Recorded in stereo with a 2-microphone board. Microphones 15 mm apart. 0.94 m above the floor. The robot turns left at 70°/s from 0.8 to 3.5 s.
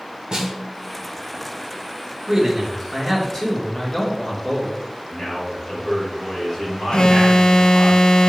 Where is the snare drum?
55° right (ahead or behind), 1.3 m; by 1.0 s 45° right (ahead or behind), 1.3 m.